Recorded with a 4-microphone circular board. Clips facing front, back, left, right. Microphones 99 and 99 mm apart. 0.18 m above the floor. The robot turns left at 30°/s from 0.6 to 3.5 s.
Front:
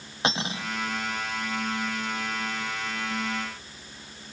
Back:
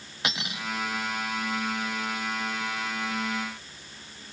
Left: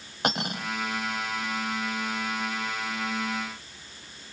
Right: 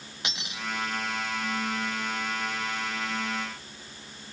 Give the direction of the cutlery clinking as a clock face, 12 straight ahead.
10 o'clock.